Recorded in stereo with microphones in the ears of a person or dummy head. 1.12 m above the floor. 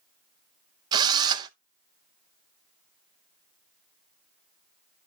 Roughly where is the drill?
Right.